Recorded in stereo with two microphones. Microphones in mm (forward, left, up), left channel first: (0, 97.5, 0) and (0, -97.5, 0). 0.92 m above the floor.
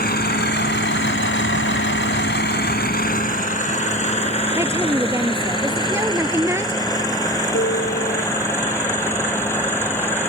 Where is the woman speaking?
15° right (ahead or behind).